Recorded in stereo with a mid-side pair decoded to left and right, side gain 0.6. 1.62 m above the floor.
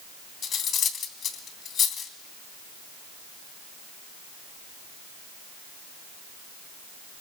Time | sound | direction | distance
0.4 | cutlery clinking | 50° left | 2.5 m